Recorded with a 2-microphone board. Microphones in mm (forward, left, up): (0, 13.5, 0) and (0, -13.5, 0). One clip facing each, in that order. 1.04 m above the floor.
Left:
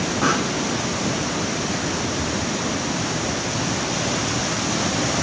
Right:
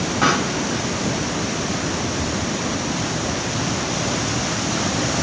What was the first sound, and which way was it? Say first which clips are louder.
A pop: right 3 dB; 65° right (ahead or behind).